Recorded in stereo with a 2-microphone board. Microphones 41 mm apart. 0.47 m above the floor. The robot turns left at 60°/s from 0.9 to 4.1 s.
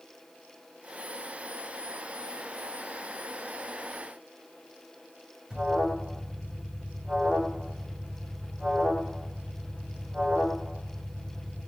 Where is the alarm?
20° right (ahead or behind), 1.9 m.